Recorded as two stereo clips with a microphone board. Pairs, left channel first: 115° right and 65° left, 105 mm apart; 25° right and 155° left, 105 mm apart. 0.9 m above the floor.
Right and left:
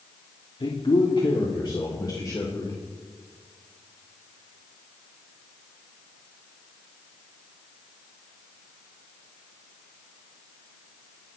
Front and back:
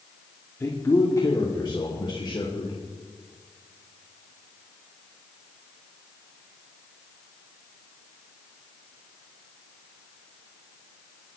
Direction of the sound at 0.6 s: 85° right.